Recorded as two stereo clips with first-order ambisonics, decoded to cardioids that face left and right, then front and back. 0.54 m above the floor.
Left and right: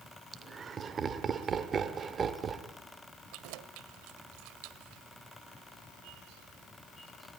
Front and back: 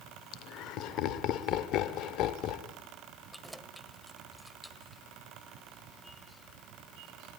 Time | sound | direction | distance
0.3 | laughter | 25° right | 1.4 m
3.3 | keys jangling | 90° right | 1.3 m